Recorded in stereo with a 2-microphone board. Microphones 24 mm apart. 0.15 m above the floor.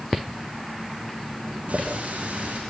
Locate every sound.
1.7 s a running tap: 80° right, 7.5 m